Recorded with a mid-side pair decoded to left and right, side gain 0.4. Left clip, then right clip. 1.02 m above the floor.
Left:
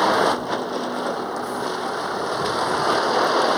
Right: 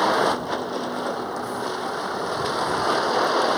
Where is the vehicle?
15° left.